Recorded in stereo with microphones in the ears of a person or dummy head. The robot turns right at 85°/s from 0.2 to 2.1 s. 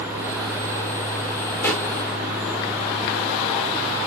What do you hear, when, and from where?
1.6 s a pop: 20° left (ahead or behind), 1.1 m; by 1.9 s 5° right (ahead or behind), 1.1 m